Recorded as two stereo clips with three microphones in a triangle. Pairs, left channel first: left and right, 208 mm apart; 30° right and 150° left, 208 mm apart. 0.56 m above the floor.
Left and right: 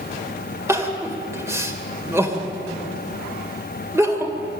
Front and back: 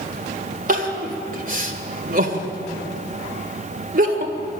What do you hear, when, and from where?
0.7 s crying: 165° right, 2 m